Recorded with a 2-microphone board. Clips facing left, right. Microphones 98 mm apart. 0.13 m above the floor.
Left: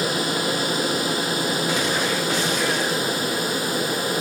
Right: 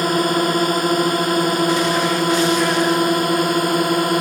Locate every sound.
0.0 s a drone: 50° right (ahead or behind); by 4.2 s 55° right (ahead or behind)